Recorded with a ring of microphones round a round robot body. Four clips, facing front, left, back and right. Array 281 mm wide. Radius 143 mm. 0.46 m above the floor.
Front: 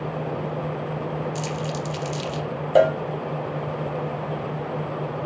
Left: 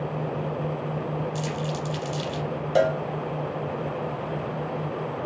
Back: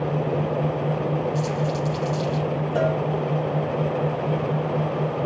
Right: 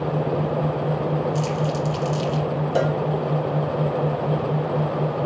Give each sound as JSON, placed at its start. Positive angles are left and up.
{"t": 1.4, "sound": "crumpling", "azimuth_deg": 15, "distance_m": 5.0}
{"t": 2.8, "sound": "a cowbell", "azimuth_deg": 10, "distance_m": 0.6}